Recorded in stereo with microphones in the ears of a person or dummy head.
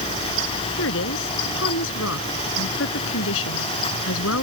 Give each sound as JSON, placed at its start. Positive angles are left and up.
{"t": 0.8, "sound": "a woman speaking", "side_deg": 70}